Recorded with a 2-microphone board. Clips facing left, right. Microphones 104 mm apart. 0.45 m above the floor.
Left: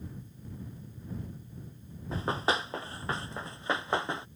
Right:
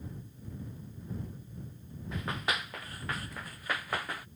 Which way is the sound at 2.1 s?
30° left (ahead or behind).